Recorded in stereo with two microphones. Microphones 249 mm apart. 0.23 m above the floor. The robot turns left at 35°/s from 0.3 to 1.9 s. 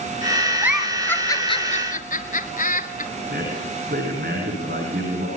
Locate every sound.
0.6 s a giggle: 10° right (ahead or behind), 1.2 m; by 3.1 s 35° left (ahead or behind), 1.2 m
3.3 s a man speaking: 40° right (ahead or behind), 10 m